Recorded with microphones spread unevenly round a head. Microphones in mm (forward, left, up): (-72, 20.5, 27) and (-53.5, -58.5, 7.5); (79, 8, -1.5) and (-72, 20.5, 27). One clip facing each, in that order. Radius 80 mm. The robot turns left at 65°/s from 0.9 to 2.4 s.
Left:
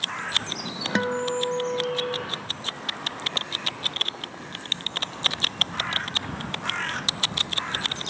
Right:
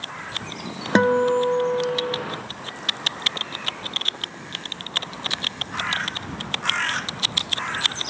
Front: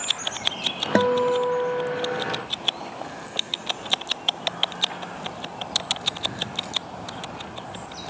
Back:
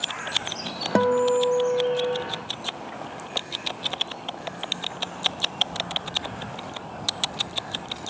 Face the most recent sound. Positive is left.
turn(degrees=165)